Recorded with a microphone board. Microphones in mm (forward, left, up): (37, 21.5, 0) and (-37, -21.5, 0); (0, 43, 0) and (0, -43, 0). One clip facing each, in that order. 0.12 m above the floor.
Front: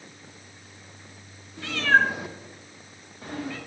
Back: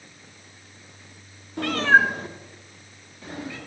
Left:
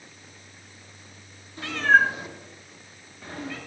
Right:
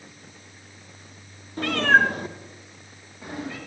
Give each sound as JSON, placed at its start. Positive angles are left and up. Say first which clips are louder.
{"t": 1.6, "sound": "a cat meowing", "louder": "back 3 dB, right 1 dB", "azimuth_deg": -130, "distance_m": 0.6}